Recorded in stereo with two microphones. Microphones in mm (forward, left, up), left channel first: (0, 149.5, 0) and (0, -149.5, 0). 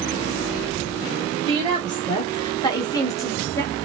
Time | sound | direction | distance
1.5 | a woman speaking | 15° left (ahead or behind) | 0.9 m